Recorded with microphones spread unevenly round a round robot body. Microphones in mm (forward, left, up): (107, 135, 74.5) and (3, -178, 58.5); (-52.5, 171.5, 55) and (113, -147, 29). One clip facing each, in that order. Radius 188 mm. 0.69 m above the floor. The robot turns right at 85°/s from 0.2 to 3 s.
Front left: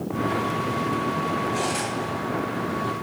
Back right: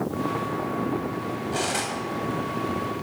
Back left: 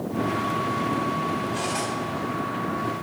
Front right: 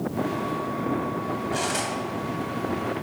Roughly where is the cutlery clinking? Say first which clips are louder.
Front left 2 dB, even; ahead right.